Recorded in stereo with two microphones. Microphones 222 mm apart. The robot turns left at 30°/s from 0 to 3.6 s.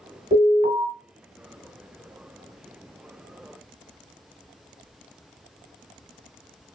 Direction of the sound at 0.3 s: 35° right (ahead or behind).